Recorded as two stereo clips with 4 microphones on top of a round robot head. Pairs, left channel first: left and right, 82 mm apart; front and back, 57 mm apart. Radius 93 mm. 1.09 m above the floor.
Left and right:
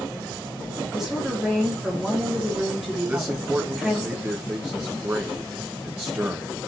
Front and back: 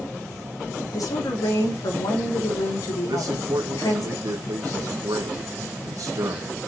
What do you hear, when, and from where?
0.9 s a woman speaking: 5° right, 3 m
3.1 s a man speaking: 160° right, 1.2 m